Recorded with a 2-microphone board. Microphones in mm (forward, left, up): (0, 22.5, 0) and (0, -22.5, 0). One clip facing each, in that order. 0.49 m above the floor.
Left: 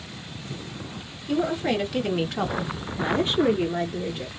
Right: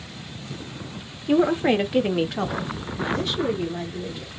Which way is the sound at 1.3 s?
35° right (ahead or behind).